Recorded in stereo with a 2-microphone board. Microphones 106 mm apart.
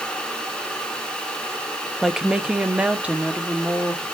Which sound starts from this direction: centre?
A woman speaking, at 2.0 s.